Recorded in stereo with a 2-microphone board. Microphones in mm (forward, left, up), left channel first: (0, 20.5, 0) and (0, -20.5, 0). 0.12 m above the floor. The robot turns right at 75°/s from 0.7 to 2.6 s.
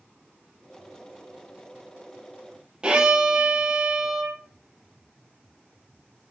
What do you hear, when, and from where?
2.8 s a violin: 20° right (ahead or behind), 0.7 m